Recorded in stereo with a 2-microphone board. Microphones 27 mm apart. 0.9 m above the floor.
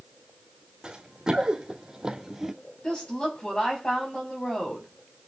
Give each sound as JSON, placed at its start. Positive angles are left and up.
{"t": 0.8, "sound": "running footsteps", "side_deg": -30, "distance_m": 3.0}
{"t": 2.8, "sound": "a woman speaking", "side_deg": 30, "distance_m": 7.5}